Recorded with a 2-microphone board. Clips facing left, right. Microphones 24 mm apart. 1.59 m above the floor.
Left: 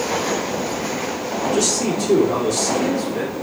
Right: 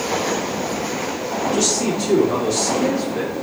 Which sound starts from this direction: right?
A man speaking, at 1.5 s.